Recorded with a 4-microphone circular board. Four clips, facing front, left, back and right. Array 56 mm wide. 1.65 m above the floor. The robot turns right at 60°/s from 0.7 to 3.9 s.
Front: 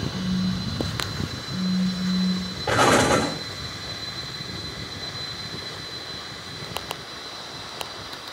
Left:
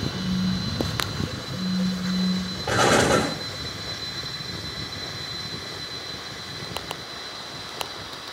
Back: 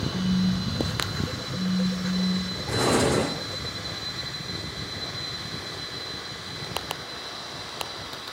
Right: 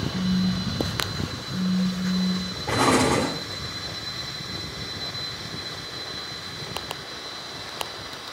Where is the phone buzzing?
105° right, 1.6 m; by 2.6 s 10° left, 1.6 m.